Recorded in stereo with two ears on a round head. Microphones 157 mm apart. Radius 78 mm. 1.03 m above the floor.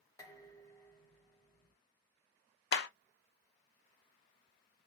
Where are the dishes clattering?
20° left (ahead or behind), 1.4 m.